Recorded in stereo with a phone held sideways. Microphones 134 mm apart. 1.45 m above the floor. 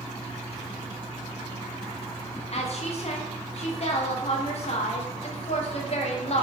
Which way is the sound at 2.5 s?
50° left (ahead or behind).